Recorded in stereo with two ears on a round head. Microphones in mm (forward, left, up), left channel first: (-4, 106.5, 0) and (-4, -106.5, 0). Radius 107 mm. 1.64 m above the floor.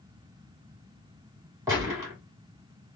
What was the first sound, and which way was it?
A gunshot, 10° right (ahead or behind).